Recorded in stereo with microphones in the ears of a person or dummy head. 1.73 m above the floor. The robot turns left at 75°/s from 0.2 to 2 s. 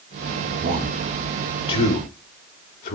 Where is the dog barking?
No dog barking in this recording.